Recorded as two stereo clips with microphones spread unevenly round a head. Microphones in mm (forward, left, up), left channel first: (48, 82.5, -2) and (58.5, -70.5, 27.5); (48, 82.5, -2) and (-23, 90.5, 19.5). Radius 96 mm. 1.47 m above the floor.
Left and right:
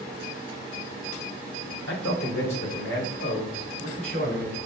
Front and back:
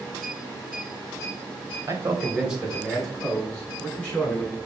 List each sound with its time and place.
1.9 s a man speaking: 125° left, 1.1 m; by 4.6 s 70° left, 4 m